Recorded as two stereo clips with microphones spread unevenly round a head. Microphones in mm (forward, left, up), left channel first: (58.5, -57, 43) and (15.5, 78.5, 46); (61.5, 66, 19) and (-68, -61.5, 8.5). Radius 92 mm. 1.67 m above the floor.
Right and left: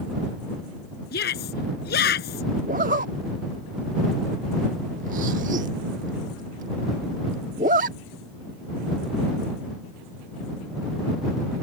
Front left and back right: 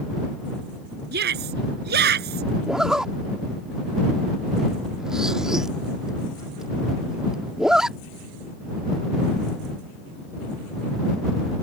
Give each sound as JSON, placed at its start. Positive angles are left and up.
{"t": 1.1, "sound": "a shout", "azimuth_deg": -95}
{"t": 2.7, "sound": "a zipper", "azimuth_deg": 135}